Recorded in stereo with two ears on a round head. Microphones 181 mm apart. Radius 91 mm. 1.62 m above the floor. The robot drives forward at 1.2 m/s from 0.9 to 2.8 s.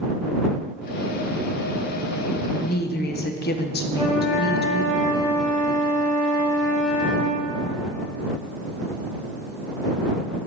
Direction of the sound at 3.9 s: 20° right (ahead or behind).